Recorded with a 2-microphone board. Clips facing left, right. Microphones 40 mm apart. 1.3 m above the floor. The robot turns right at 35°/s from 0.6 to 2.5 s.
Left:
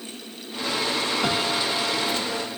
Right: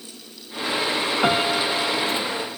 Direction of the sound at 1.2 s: 25° right.